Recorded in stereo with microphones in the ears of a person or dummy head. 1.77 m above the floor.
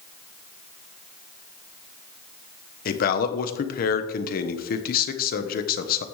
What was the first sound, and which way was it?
A man speaking, 55° left (ahead or behind).